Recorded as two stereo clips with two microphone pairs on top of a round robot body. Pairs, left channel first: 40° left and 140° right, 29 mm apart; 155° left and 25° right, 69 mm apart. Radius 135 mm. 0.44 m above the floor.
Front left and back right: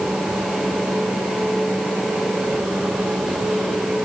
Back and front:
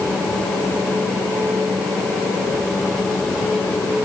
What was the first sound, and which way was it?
Only background noise.